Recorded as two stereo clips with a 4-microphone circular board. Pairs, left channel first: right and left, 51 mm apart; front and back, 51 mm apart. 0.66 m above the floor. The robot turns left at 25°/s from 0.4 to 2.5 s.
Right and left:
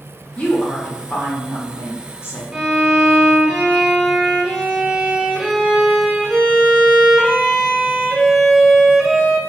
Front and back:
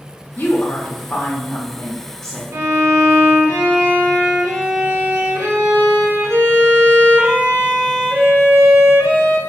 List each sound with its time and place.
0.4 s a woman speaking: 40° right, 0.7 m; by 2.4 s 90° right, 0.7 m
2.5 s a violin: 170° left, 0.6 m